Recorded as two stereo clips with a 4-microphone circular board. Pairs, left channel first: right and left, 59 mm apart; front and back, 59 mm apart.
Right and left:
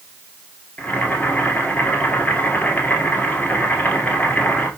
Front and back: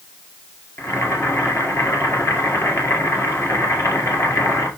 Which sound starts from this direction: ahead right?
Boiling, at 0.8 s.